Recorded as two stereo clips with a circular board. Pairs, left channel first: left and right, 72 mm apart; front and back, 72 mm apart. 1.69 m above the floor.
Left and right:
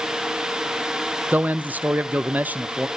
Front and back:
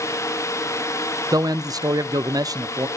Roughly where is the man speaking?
Behind right.